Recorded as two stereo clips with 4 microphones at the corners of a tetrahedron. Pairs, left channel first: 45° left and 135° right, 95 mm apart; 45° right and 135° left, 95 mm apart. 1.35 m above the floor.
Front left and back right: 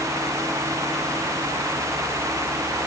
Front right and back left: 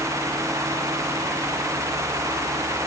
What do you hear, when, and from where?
Only background noise.